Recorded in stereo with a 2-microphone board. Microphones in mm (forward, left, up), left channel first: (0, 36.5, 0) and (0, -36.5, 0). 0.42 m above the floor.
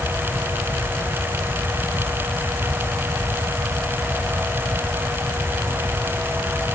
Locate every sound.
Only background noise.